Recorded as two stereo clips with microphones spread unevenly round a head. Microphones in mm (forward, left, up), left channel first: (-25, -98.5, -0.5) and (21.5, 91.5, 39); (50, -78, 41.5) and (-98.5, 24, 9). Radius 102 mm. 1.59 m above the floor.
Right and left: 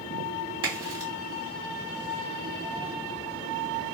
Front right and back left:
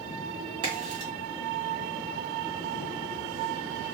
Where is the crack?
80° left, 1.6 m.